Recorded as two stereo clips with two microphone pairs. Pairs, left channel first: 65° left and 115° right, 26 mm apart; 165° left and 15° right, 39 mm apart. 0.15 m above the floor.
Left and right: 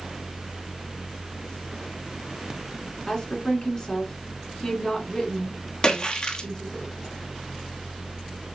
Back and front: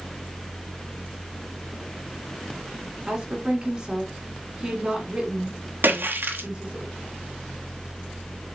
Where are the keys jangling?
No keys jangling in this recording.